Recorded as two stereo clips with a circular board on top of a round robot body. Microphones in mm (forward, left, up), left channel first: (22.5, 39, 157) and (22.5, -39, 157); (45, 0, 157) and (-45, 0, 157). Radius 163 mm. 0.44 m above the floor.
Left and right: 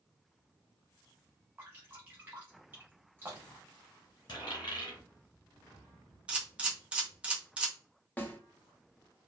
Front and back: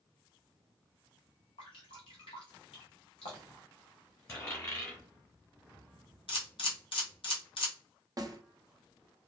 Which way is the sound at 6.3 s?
15° right.